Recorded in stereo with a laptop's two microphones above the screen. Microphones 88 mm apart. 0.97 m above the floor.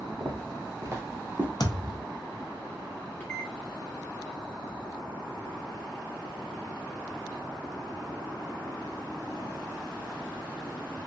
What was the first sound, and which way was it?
Footsteps, 45° right (ahead or behind).